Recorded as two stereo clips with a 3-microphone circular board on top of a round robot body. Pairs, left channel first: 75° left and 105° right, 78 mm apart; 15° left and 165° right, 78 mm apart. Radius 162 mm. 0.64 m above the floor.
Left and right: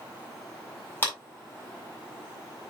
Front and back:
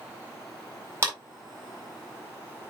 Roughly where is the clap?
Behind left.